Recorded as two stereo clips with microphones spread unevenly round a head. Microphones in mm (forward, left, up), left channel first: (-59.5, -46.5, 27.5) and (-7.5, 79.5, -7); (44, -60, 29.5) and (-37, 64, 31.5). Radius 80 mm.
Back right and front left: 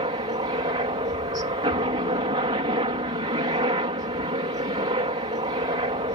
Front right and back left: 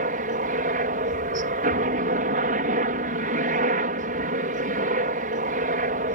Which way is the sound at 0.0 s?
105° left.